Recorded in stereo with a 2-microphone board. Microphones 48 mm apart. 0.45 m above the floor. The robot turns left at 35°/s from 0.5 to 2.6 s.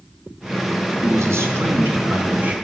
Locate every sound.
1.0 s a man speaking: 95° right, 3 m; by 2.5 s 150° right, 3 m